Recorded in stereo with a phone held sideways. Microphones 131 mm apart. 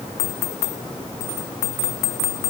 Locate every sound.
Only background noise.